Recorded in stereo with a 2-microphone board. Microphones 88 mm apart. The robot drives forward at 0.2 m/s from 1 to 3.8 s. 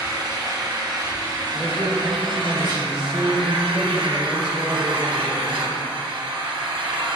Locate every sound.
0.0 s an engine running: 45° right (ahead or behind), 0.8 m; by 7.2 s 80° right, 0.6 m
1.5 s a man speaking: 15° right (ahead or behind), 0.7 m; by 5.8 s 10° right (ahead or behind), 1.0 m